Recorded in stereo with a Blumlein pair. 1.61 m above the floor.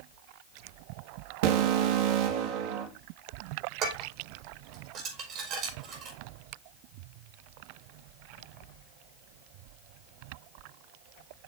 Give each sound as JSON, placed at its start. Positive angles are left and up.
{"t": 1.4, "sound": "an alarm", "azimuth_deg": -55, "distance_m": 3.0}
{"t": 3.8, "sound": "dishes clattering", "azimuth_deg": -30, "distance_m": 4.5}